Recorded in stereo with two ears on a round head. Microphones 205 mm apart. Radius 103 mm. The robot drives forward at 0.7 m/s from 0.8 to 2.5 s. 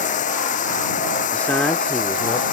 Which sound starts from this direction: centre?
A man speaking, at 1.3 s.